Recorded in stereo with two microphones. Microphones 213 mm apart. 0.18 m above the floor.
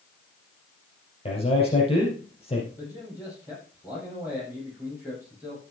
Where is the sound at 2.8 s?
5° right (ahead or behind), 8 m.